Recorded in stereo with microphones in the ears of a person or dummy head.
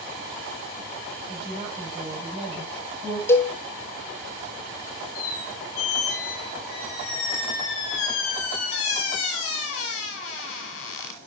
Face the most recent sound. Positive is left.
turn(degrees=50)  # may be behind; listen again after turning